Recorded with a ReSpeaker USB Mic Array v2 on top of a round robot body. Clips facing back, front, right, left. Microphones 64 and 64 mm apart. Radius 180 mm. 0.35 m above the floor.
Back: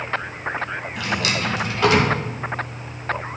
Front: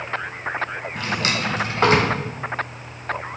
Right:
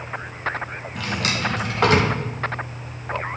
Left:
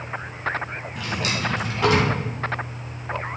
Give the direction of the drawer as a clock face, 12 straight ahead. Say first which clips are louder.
Even, right 2 dB; 2 o'clock.